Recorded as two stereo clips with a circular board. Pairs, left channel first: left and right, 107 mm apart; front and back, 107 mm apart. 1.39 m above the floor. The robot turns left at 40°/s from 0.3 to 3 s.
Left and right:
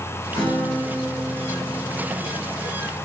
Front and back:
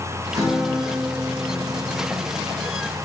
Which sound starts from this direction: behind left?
A guitar, at 0.3 s.